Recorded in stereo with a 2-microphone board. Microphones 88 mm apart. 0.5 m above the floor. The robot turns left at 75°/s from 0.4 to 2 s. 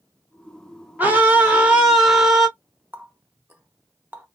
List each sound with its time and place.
1.0 s a scream: 20° right (ahead or behind), 1.1 m; by 2.5 s 5° right (ahead or behind), 1.1 m
2.9 s a running tap: 20° right (ahead or behind), 0.8 m